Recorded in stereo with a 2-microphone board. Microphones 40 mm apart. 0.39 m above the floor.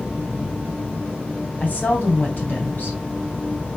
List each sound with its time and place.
1.6 s a woman speaking: 55° left (ahead or behind), 2 m